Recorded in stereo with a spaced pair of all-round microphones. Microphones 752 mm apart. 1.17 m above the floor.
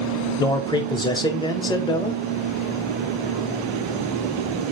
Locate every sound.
0.4 s a man speaking: 5° left (ahead or behind), 0.6 m